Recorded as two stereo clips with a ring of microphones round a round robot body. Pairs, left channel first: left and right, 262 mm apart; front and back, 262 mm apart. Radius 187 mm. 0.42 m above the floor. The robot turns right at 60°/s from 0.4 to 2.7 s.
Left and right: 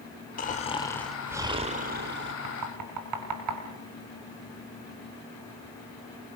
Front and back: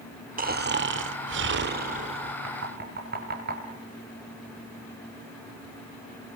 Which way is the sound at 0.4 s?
135° left.